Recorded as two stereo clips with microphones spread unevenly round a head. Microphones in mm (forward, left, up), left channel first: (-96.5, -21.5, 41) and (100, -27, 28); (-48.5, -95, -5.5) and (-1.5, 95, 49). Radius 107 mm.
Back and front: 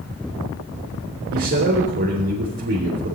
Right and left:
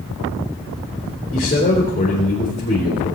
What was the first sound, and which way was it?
A man speaking, 40° right.